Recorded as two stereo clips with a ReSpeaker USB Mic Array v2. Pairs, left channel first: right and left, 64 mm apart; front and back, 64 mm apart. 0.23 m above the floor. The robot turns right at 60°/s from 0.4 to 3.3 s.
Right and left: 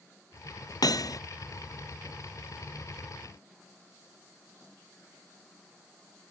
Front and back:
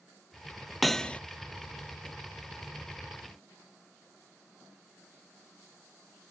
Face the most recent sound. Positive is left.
turn(degrees=60)